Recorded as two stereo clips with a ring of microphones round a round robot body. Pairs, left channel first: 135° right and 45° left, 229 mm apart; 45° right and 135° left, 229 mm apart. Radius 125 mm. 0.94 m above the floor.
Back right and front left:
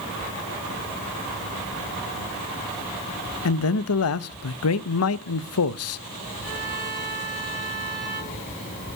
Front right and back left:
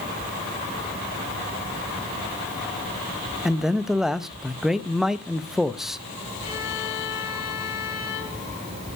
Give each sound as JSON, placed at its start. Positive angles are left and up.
{"t": 3.5, "sound": "a man speaking", "azimuth_deg": -135, "distance_m": 0.7}
{"t": 6.4, "sound": "a violin", "azimuth_deg": -15, "distance_m": 7.0}